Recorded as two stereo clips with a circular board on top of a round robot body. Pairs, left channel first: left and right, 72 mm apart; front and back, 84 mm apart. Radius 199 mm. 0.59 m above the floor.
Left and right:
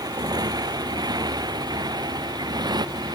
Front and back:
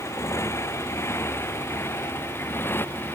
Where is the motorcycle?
60° right; by 3.1 s 65° right.